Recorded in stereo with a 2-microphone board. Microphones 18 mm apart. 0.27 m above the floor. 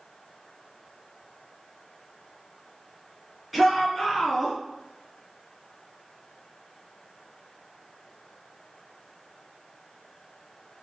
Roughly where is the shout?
Centre.